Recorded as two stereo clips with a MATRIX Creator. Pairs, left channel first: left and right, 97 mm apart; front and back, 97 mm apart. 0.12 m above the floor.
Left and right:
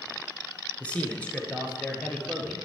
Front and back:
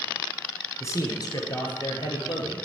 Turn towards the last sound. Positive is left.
turn(degrees=15)